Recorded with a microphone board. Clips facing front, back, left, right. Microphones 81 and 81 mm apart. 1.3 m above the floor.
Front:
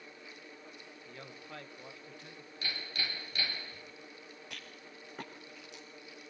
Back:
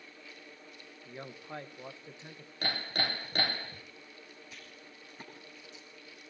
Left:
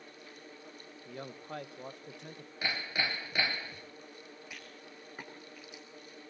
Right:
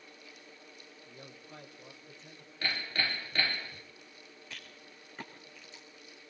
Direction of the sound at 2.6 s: 165° left.